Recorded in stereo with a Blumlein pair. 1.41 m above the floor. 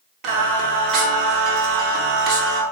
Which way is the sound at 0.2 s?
35° right.